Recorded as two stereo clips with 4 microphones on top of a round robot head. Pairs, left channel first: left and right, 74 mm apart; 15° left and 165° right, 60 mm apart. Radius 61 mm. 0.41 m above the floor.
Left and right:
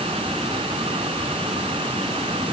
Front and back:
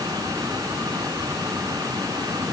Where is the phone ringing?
No phone ringing in this recording.